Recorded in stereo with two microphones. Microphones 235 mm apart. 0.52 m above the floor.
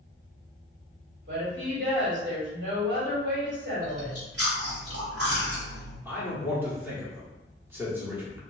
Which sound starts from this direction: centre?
A man speaking, at 6.0 s.